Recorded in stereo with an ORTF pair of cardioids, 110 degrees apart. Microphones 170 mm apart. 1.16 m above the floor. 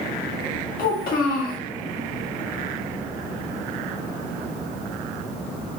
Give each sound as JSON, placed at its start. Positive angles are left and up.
{"t": 0.8, "sound": "a child speaking", "azimuth_deg": 60, "distance_m": 1.1}